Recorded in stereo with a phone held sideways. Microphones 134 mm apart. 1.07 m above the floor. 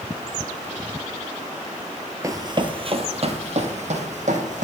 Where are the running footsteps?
25° right (ahead or behind), 1.3 m; by 4.7 s 65° right (ahead or behind), 3.5 m.